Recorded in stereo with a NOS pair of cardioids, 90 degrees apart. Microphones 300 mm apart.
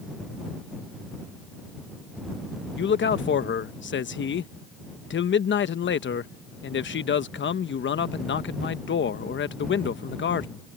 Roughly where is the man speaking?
Ahead left.